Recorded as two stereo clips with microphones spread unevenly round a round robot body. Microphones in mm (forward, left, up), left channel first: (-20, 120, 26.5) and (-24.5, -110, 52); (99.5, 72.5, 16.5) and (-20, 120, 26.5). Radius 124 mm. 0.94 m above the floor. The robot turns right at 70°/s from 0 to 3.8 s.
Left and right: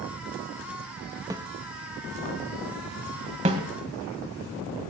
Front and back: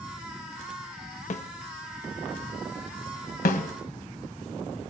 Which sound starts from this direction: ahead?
A snare drum, at 1.3 s.